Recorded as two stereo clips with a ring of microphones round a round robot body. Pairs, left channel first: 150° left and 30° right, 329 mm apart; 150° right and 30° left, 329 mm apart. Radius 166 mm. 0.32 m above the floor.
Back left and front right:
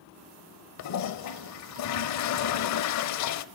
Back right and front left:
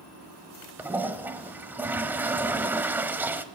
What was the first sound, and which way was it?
A toilet flushing, 115° left.